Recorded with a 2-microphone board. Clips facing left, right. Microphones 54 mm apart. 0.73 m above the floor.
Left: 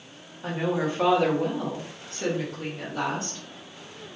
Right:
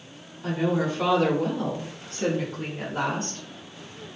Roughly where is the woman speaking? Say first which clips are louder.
Right 2 dB; left.